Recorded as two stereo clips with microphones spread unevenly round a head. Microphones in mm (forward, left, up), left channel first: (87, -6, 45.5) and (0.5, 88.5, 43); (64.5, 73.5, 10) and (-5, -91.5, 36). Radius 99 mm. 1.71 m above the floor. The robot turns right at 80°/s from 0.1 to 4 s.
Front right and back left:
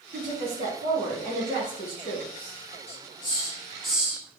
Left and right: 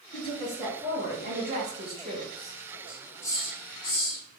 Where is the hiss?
40° right, 0.8 m; by 4.4 s 50° left, 0.8 m.